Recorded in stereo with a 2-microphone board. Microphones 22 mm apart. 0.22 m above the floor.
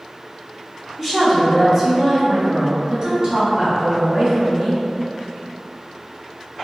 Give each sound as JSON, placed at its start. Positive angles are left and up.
{"t": 1.0, "sound": "a woman speaking", "side_deg": -5, "distance_m": 1.1}